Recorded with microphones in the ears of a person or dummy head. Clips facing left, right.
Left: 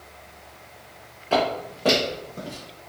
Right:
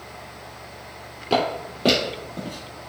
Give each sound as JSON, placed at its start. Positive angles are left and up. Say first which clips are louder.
{"t": 1.3, "sound": "footsteps", "louder": "even", "side_deg": -30, "distance_m": 1.3}